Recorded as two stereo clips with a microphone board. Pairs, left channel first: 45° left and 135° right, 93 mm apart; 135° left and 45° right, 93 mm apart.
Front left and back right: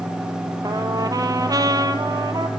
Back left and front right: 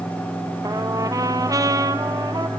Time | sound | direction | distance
0.6 | a trumpet | 90° right | 0.9 m